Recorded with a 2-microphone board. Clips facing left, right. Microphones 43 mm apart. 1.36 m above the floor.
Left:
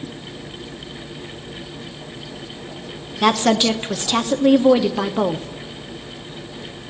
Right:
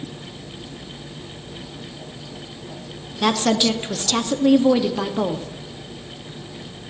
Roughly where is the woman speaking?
Centre.